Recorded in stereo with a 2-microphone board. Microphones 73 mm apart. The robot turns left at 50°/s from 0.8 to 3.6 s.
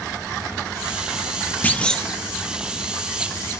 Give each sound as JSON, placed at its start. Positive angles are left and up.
{"t": 1.6, "sound": "a clunk", "side_deg": 25, "distance_m": 0.8}